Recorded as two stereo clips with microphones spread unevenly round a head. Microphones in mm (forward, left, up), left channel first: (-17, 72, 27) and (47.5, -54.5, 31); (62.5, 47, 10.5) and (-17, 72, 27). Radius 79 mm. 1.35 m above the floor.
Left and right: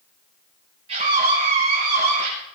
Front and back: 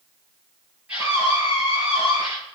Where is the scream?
120° right, 8.5 m; by 2.3 s 110° right, 8.5 m.